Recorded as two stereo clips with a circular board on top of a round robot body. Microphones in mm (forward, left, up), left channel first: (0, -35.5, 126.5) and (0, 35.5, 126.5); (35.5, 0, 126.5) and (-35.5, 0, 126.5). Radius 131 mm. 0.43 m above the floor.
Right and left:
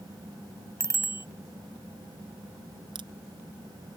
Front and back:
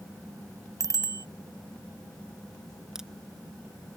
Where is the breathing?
I don't hear breathing.